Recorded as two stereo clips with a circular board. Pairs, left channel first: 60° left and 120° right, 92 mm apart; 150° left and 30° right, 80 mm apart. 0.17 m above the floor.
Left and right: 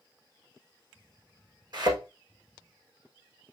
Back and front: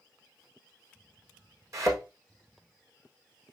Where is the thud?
80° right, 4.5 m.